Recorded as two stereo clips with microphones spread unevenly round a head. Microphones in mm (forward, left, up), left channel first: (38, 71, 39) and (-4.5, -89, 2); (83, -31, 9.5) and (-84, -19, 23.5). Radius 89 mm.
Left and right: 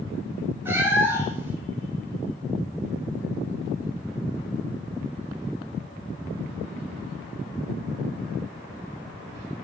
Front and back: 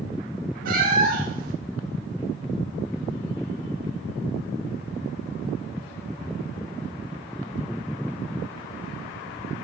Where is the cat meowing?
170° left, 1.1 m.